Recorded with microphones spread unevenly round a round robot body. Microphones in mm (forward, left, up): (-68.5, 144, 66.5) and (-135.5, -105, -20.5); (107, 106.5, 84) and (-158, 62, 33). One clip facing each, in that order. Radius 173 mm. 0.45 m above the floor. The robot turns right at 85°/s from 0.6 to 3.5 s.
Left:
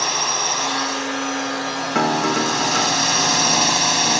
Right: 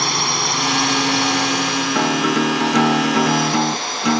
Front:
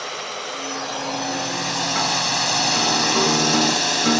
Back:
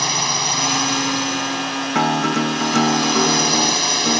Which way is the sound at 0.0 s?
145° right.